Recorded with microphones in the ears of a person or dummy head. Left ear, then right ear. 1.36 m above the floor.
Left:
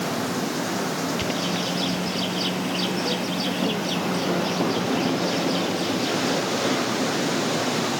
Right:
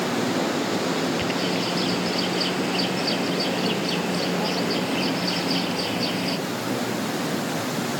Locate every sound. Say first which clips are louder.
1.2 s a bird: right 1 dB; 10° right (ahead or behind)